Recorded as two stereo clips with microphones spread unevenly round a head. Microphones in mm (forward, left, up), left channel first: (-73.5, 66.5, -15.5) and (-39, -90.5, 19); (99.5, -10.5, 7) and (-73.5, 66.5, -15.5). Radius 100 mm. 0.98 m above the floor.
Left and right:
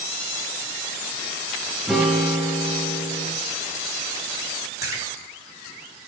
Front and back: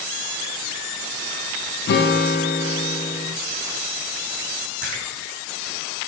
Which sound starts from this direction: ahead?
A guitar, at 1.9 s.